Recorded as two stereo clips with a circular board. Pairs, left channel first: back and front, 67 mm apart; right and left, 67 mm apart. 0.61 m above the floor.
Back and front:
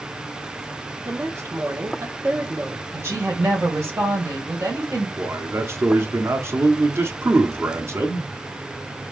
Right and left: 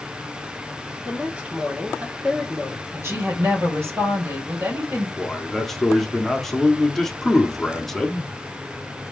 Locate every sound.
1.1 s a woman speaking: 25° left, 1.6 m
2.9 s a woman speaking: 45° left, 2 m
5.2 s a man speaking: 10° right, 1.0 m